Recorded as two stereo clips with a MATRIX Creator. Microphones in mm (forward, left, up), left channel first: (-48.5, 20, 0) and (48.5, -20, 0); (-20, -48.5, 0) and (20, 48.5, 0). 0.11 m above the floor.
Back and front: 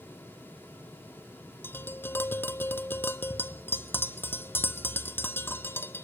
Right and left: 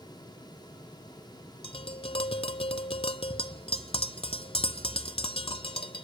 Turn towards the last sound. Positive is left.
turn(degrees=-135)